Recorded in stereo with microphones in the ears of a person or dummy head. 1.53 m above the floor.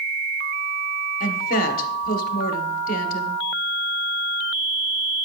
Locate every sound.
1.2 s a woman speaking: 50° left (ahead or behind), 1.2 m